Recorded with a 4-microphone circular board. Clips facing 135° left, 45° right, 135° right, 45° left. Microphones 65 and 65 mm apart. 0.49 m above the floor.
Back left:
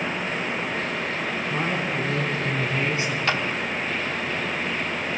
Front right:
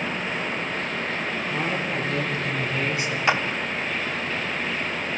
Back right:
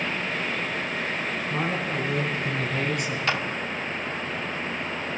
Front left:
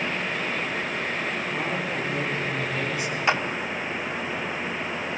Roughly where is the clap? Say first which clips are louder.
Front right 4 dB, front left 4 dB; ahead.